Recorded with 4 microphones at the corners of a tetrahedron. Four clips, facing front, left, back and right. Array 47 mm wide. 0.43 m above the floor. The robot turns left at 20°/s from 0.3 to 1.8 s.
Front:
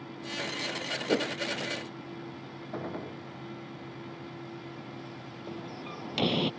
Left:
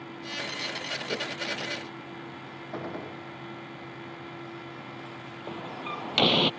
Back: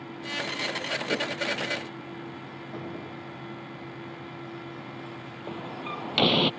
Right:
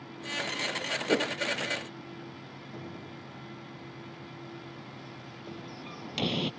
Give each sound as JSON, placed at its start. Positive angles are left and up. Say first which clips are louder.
{"t": 1.1, "sound": "a whoosh", "louder": "right 7 dB, front 2 dB", "azimuth_deg": -50}
{"t": 2.7, "sound": "a gunshot", "louder": "left 8 dB, front 1 dB", "azimuth_deg": 65}
{"t": 5.5, "sound": "a door slam", "louder": "left 8 dB, back 6 dB", "azimuth_deg": 130}